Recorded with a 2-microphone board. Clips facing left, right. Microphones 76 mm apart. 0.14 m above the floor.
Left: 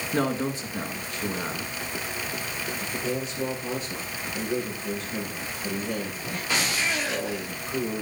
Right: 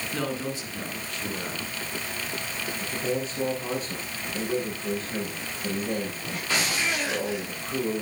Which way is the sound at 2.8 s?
35° right (ahead or behind).